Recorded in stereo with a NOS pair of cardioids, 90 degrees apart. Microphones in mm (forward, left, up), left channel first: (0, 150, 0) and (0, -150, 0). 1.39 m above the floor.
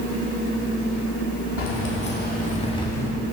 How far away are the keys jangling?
About 2 m.